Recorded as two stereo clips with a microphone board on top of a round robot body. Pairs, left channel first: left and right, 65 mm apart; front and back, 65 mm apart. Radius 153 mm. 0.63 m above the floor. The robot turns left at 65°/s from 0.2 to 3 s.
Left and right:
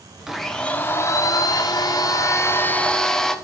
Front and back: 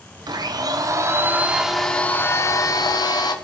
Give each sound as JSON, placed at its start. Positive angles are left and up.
{"t": 0.3, "sound": "a blender", "azimuth_deg": -170, "distance_m": 1.3}